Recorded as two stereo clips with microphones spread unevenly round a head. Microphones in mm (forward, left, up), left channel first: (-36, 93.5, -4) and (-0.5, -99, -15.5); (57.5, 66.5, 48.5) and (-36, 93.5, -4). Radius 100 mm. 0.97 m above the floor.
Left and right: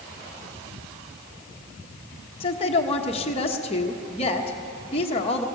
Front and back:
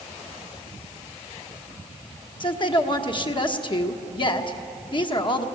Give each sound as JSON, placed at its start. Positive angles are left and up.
{"t": 2.4, "sound": "a woman speaking", "azimuth_deg": 40, "distance_m": 1.3}